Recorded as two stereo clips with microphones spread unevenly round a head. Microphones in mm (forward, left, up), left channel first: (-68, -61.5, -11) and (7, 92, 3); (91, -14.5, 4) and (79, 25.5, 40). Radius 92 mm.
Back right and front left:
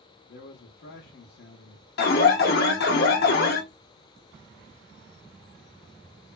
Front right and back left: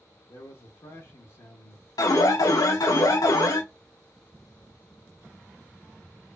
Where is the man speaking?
105° right, 0.6 m.